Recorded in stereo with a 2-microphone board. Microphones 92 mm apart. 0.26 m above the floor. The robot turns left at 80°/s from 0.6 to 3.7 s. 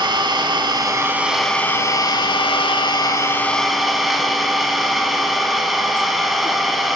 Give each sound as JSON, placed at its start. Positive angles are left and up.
{"t": 0.0, "sound": "an engine running", "azimuth_deg": -115, "distance_m": 0.9}